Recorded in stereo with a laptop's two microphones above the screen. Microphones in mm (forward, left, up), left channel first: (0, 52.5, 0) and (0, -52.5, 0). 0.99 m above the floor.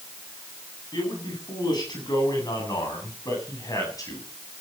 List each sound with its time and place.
0.9 s a man speaking: 45° left (ahead or behind), 9.5 m; by 4.3 s 35° left (ahead or behind), 8 m